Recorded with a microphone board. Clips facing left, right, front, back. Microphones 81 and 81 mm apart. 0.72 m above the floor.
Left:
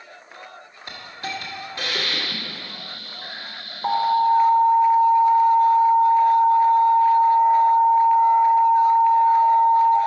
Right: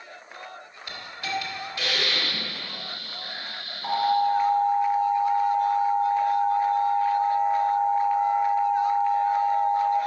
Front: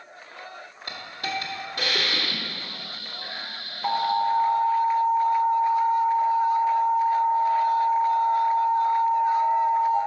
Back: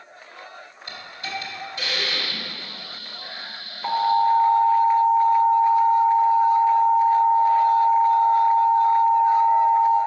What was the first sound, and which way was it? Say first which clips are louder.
A hiss: even, front 2 dB; 35° left.